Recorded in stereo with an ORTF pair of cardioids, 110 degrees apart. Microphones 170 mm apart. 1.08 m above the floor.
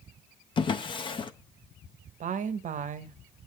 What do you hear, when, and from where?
0.6 s a drawer: 30° left, 0.6 m
2.2 s a woman speaking: 50° right, 0.8 m